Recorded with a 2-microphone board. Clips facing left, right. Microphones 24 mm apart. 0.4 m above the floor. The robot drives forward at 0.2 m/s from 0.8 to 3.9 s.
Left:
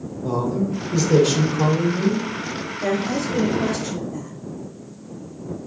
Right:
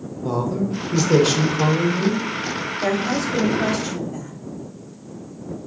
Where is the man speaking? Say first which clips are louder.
Even; 15° right (ahead or behind), 0.8 m.